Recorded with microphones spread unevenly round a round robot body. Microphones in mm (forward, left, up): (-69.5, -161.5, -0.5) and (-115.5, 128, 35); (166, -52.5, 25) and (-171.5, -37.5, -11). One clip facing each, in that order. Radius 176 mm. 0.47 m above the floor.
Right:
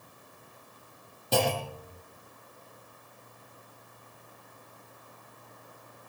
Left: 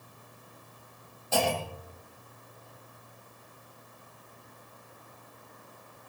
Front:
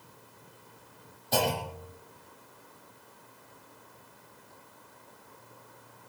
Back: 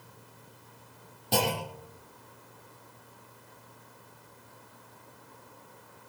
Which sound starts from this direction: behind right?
A clunk, at 1.3 s.